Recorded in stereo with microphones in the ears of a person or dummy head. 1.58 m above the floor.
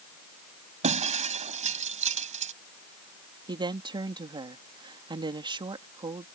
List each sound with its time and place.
0.8 s breaking glass: 40° right (ahead or behind)
3.5 s a woman speaking: 25° right (ahead or behind)